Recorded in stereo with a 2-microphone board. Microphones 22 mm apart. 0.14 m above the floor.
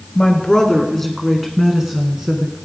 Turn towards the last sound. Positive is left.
turn(degrees=-30)  # may be behind; listen again after turning